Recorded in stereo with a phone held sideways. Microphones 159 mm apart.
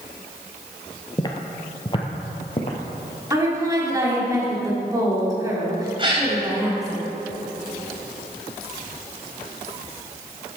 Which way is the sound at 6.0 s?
30° right (ahead or behind).